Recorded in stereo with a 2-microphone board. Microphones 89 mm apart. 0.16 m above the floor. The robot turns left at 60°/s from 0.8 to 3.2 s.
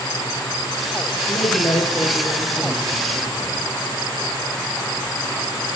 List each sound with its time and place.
1.3 s a man speaking: 75° left, 6 m; by 3.6 s 40° right, 6 m